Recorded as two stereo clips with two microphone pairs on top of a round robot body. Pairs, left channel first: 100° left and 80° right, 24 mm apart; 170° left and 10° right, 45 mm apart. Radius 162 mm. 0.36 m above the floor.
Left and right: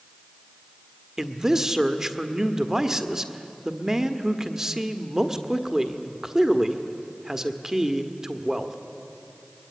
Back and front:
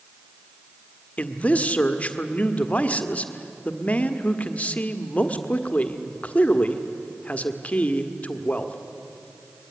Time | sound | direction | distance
1.2 | a man speaking | 150° right | 1.7 m